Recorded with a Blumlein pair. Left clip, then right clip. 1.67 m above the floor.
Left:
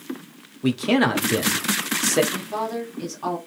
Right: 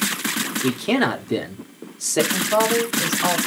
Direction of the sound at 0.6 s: Straight ahead.